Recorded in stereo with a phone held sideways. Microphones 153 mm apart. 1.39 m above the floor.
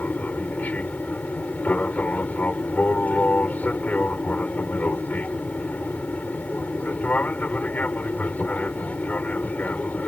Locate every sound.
0.0 s an aircraft: 10° left (ahead or behind)